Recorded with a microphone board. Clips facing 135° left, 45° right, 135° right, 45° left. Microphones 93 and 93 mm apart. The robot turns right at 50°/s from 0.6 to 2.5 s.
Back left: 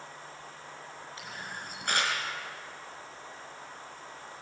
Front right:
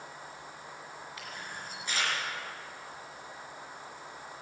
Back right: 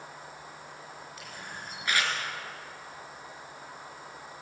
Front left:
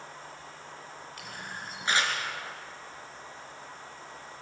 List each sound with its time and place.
1.2 s a camera shutter: 70° left, 4.5 m; by 2.1 s 120° left, 4.5 m